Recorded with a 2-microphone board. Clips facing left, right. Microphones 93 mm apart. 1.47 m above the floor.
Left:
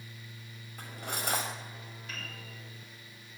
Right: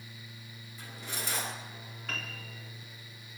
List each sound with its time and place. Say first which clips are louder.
0.8 s cutlery clinking: left 4 dB; 60° left (ahead or behind), 5 m
2.1 s a piano: right 5 dB; 80° right, 4 m